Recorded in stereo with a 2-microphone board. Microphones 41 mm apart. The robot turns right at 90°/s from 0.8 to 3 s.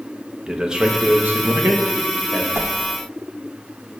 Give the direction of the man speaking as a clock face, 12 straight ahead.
5 o'clock.